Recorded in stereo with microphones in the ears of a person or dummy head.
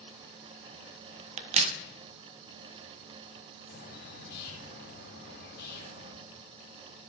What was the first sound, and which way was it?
A crack, 40° right (ahead or behind).